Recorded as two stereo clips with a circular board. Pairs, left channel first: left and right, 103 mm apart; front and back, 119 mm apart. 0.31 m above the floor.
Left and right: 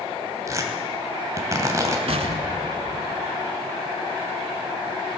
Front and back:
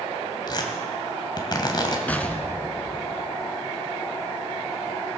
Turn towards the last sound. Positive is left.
turn(degrees=-80)